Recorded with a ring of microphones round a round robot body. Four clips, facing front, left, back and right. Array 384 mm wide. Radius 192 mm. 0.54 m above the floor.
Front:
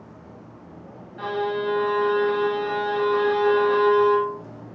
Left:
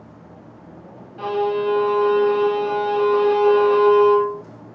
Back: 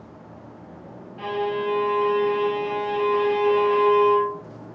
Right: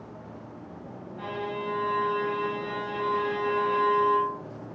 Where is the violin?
80° left, 0.9 m.